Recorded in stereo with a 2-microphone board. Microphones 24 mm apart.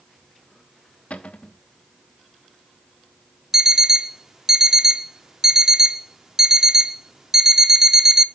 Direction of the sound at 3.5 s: 15° right (ahead or behind).